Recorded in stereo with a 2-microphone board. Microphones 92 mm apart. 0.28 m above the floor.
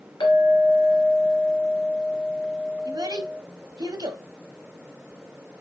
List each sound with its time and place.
0.2 s a clink: 65° left (ahead or behind), 2 m
2.9 s a child speaking: 50° right (ahead or behind), 0.8 m